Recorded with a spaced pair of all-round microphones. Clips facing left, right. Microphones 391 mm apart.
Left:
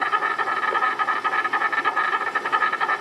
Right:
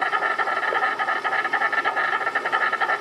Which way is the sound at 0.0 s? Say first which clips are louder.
Right 1 dB; 15° left (ahead or behind).